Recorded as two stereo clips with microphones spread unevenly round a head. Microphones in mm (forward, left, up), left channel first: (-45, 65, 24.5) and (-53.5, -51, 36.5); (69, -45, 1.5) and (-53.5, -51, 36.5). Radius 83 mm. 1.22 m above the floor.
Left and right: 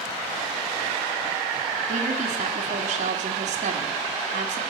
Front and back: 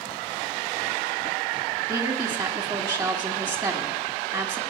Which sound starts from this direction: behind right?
A woman speaking, at 1.9 s.